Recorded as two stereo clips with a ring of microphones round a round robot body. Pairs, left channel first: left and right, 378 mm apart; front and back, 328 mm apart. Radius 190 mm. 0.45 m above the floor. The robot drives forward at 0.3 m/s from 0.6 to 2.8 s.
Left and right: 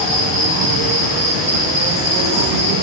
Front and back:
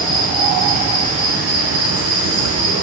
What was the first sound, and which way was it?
An insect, 125° right.